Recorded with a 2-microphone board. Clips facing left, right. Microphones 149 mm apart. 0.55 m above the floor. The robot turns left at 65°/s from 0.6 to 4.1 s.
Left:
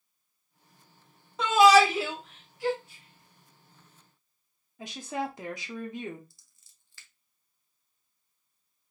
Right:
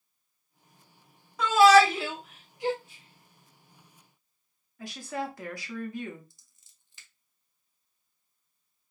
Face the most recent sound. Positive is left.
turn(degrees=-20)  # may be behind; listen again after turning